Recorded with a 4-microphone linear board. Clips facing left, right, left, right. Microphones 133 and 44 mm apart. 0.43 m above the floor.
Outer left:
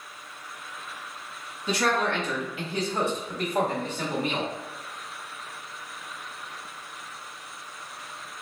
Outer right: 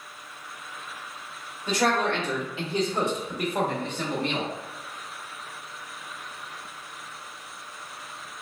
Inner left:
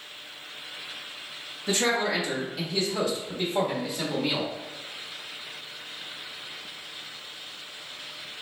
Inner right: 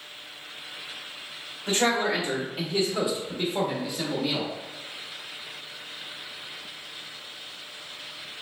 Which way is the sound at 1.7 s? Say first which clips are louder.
Outer right 1 dB, inner right 1 dB; 45° right (ahead or behind).